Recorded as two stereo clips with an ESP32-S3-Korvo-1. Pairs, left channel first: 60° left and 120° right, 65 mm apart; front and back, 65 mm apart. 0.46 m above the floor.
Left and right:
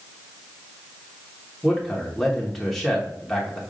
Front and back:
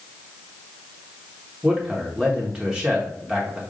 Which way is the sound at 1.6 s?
135° left.